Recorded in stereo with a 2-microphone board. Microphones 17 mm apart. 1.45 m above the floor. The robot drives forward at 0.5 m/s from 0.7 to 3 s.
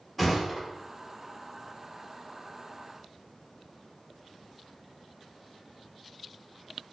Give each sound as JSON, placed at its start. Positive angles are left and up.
{"t": 0.2, "sound": "a thud", "side_deg": 5, "distance_m": 1.1}